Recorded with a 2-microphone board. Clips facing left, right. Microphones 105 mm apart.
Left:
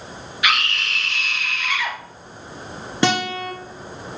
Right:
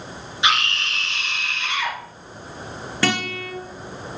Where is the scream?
25° right (ahead or behind), 2 m.